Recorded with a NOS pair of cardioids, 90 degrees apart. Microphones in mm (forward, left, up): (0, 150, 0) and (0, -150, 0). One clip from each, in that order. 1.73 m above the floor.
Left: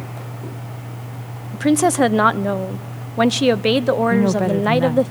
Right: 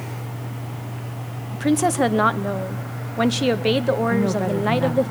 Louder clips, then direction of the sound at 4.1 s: Left 4 dB; 25° left.